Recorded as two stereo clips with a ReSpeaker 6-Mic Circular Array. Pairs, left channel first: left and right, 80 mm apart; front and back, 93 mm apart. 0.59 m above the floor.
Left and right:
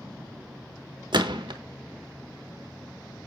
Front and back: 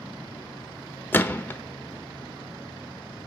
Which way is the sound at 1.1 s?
70° right.